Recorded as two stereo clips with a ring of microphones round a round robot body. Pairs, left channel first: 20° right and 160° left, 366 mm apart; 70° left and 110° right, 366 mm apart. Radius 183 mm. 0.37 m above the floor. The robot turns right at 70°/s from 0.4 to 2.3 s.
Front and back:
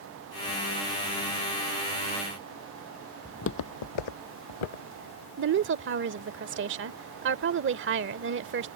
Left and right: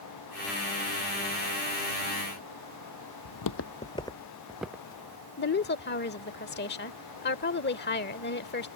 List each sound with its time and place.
3.2 s footsteps: 60° left; by 5.3 s 30° right
5.4 s a woman speaking: 115° left